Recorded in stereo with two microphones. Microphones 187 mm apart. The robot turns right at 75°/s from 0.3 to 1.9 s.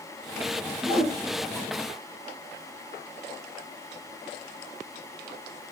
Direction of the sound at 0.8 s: 5° right (ahead or behind).